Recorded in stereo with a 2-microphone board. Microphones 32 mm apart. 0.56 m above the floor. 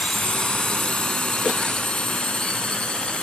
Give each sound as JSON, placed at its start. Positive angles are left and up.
{"t": 0.0, "sound": "a drone", "side_deg": 35}